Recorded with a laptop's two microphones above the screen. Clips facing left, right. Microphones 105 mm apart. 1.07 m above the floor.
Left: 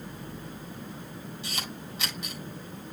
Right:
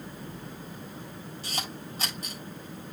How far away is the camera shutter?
About 8 m.